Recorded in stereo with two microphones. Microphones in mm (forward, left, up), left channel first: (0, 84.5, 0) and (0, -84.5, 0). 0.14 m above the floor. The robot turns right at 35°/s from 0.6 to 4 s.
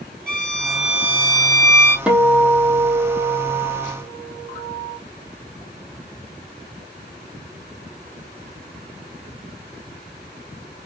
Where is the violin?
175° left, 1.5 m; by 2.0 s 140° right, 1.5 m.